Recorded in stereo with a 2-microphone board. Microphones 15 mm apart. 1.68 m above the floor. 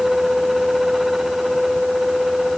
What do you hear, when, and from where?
Only background noise.